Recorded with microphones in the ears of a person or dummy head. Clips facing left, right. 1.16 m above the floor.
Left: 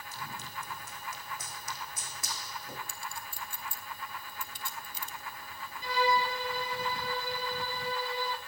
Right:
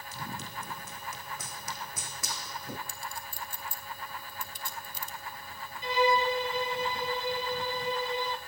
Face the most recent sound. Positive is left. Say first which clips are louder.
# right 3 dB
turn(degrees=-20)  # may be behind; listen again after turning